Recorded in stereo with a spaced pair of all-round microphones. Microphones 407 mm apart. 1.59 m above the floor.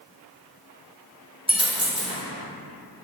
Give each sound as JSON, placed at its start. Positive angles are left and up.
{"t": 1.5, "sound": "a dropped coin", "side_deg": -15, "distance_m": 0.9}